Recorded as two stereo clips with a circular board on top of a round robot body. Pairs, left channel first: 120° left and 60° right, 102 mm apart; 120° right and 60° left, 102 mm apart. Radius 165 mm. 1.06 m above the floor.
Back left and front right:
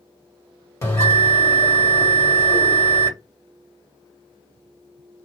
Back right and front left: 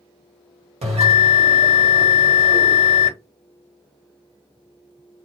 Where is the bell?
60° left, 1.6 m.